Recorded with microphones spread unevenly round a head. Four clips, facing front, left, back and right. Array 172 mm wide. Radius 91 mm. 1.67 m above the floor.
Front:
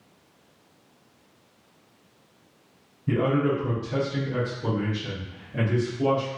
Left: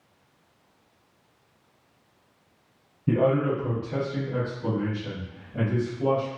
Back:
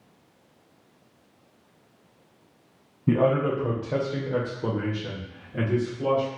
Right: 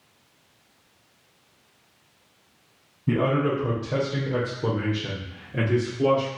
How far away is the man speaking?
About 1.1 m.